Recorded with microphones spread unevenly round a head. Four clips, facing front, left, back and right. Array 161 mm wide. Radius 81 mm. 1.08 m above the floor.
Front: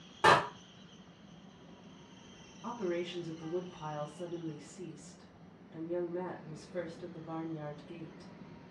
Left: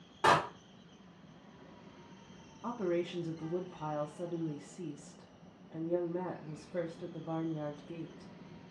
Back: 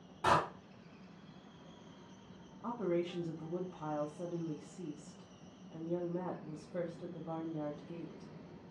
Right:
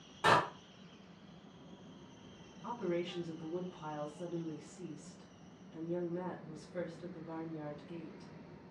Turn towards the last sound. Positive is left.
turn(degrees=105)